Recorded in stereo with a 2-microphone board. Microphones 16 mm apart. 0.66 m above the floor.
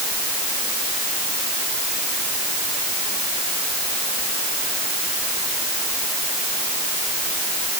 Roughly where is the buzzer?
No buzzer in this recording.